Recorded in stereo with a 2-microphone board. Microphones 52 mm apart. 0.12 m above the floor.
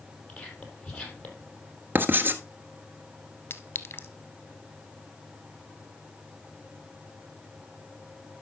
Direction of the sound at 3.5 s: 45° left (ahead or behind).